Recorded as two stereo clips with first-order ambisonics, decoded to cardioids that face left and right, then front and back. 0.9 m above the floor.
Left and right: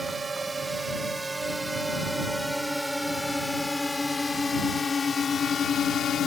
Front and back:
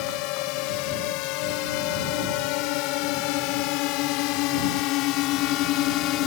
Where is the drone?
15° right; by 6.3 s 35° left.